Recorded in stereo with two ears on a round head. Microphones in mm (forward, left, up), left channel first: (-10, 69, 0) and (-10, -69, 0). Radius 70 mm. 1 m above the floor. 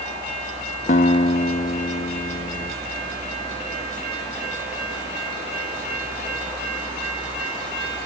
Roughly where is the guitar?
Left.